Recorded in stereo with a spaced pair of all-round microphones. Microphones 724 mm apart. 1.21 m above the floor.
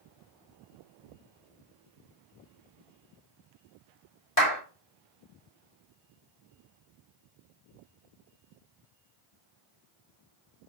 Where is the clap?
20° left (ahead or behind), 2.5 m.